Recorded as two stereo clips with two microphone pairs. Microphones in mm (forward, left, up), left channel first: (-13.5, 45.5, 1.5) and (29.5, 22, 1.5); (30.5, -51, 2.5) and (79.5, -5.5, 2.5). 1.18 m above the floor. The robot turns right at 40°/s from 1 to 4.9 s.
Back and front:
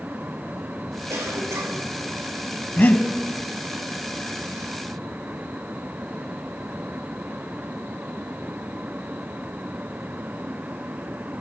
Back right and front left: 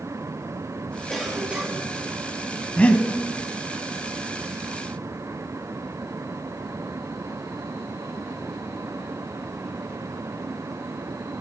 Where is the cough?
50° right, 3 m; by 1.9 s 20° right, 3 m.